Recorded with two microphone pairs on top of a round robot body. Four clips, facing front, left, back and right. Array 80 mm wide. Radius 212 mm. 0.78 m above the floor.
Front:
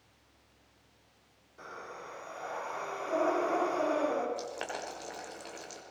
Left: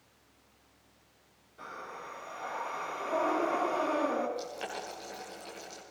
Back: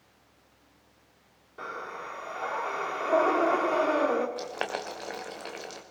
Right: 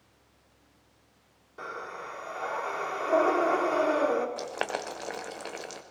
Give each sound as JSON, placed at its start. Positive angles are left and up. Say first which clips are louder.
{"t": 1.6, "sound": "breathing", "louder": "right 5 dB, back 7 dB", "azimuth_deg": -135, "distance_m": 3.5}
{"t": 4.4, "sound": "boiling", "louder": "right 6 dB, back 5 dB", "azimuth_deg": -125, "distance_m": 1.5}